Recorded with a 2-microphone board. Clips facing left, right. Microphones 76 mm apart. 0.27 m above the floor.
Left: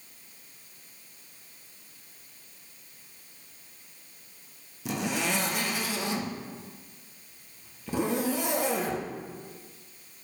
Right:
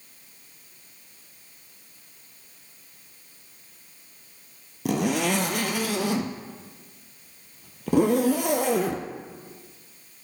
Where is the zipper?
60° right (ahead or behind), 1.2 m.